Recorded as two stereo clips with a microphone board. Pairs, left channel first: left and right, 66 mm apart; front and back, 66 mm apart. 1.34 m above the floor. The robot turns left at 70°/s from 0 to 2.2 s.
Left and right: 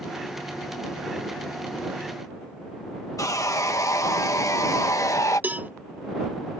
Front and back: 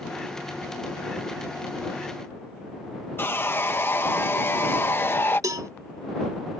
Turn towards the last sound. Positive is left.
turn(degrees=-150)